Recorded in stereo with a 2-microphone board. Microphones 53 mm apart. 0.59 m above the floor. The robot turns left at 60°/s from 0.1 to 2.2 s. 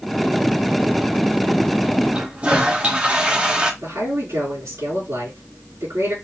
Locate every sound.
2.1 s a toilet flushing: 25° right (ahead or behind), 0.9 m
3.8 s a man speaking: 80° right, 5 m